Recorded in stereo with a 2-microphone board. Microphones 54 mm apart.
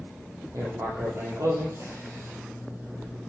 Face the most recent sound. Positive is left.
turn(degrees=-65)  # may be behind; listen again after turning